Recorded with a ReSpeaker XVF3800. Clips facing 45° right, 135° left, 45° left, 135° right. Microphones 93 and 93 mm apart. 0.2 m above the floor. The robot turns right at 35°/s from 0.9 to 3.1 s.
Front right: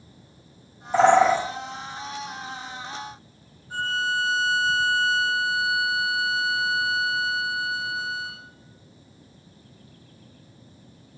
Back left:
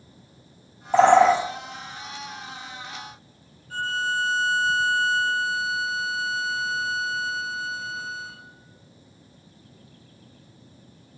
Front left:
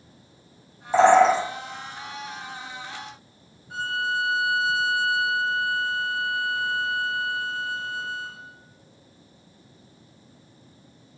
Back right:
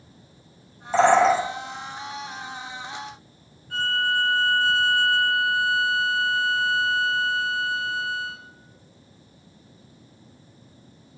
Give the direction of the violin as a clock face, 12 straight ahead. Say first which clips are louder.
Even, back right 2 dB; 12 o'clock.